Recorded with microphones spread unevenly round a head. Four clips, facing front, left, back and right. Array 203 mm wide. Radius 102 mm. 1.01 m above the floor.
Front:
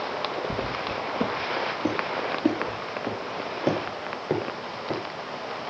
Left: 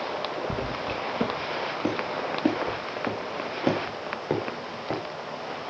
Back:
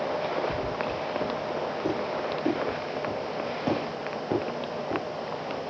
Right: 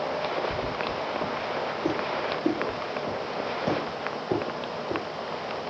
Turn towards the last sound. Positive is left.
turn(degrees=45)